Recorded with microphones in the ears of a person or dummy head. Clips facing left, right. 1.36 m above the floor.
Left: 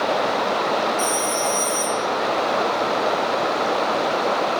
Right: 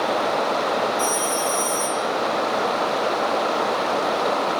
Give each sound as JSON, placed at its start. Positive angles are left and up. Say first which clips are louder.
{"t": 1.0, "sound": "a phone ringing", "louder": "left 1 dB", "side_deg": 70, "distance_m": 1.7}